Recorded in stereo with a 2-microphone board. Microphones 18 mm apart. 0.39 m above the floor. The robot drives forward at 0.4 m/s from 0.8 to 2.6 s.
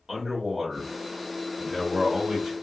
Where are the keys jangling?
No keys jangling in this recording.